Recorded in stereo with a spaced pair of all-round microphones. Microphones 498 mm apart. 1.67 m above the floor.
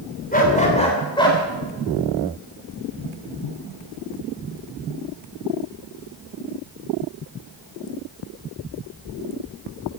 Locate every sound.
0.3 s a dog barking: 15° left (ahead or behind), 3 m; by 1.4 s 10° left (ahead or behind), 3 m